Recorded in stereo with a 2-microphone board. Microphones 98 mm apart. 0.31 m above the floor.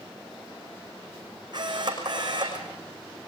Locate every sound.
1.5 s a camera shutter: 45° right (ahead or behind), 6 m